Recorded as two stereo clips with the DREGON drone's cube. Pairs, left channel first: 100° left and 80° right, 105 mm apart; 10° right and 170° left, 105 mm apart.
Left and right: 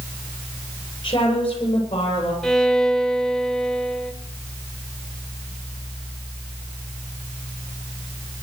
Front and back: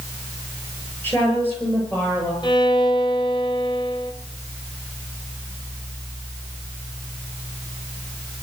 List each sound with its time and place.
1.0 s a woman speaking: 60° left, 9 m
2.4 s a violin: 20° left, 0.9 m